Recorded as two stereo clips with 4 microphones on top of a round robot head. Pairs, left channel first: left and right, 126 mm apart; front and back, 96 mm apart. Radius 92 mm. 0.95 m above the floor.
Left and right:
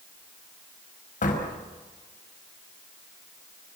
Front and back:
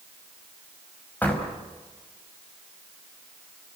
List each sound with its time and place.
1.2 s a door slam: 75° left, 4.5 m